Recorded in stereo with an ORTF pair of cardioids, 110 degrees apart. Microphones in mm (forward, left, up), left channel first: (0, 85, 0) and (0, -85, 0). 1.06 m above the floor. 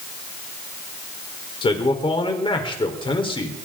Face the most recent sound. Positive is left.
turn(degrees=30)